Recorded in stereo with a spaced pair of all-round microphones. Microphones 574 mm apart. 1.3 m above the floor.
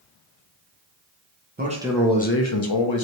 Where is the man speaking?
20° right (ahead or behind), 0.7 m; by 3.0 s 55° left (ahead or behind), 0.7 m.